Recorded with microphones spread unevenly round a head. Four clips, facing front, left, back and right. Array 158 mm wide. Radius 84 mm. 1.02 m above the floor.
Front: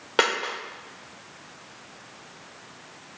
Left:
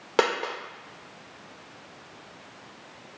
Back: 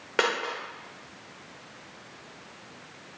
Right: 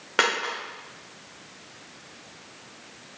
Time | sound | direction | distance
0.2 | a dropped coin | 75° left | 1.8 m